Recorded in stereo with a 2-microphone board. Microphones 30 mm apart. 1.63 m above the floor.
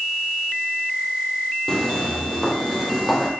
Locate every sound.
1.7 s footsteps: 15° left (ahead or behind), 2.5 m; by 3.3 s centre (ahead or behind), 3 m